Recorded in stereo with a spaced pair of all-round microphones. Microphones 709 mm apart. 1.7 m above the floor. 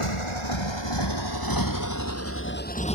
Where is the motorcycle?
45° left (ahead or behind); by 3.0 s 5° left (ahead or behind).